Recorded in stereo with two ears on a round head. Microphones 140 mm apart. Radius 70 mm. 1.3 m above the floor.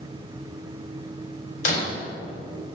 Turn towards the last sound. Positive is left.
turn(degrees=50)  # may be behind; listen again after turning